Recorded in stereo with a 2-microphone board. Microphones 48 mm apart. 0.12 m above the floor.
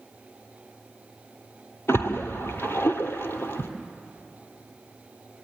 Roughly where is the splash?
Left.